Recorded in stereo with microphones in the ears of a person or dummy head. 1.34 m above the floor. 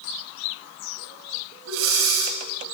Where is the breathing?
80° right, 6.5 m.